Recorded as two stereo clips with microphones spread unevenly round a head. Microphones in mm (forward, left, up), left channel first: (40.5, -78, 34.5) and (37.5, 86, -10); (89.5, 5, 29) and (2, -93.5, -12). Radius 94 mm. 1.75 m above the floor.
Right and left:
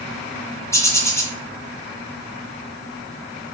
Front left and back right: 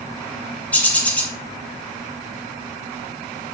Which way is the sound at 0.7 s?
25° right.